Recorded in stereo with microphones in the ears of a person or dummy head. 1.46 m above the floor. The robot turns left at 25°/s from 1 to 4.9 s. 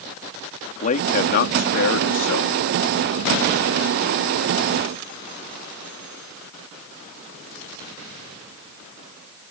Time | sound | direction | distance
0.8 | a man speaking | 140° left | ?